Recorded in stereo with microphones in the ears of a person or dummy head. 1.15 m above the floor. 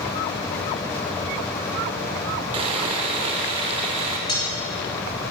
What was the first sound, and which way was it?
Sawing, 30° right (ahead or behind).